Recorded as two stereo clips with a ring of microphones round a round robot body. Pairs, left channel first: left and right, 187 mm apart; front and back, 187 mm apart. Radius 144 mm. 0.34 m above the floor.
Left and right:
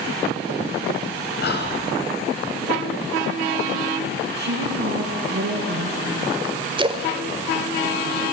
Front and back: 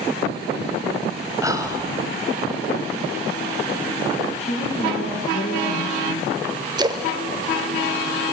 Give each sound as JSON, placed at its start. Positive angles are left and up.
{"t": 1.4, "sound": "whispering", "azimuth_deg": 110, "distance_m": 2.5}
{"t": 4.4, "sound": "a woman speaking", "azimuth_deg": -60, "distance_m": 4.5}
{"t": 6.8, "sound": "a splash", "azimuth_deg": -130, "distance_m": 1.2}